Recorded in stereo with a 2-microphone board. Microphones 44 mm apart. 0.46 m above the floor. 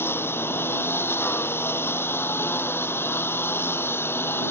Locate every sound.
0.0 s a lawn mower: 60° left (ahead or behind)